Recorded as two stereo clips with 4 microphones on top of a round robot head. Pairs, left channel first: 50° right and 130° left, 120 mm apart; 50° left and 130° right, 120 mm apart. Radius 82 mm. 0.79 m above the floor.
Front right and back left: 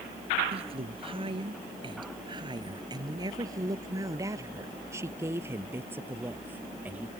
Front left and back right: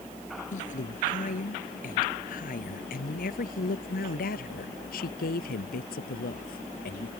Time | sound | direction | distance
0.5 | a woman speaking | 80° left | ?